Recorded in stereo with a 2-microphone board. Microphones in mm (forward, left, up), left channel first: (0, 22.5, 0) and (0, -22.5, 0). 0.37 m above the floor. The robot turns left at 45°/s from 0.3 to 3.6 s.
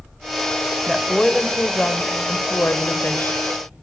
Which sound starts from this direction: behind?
A woman speaking, at 0.9 s.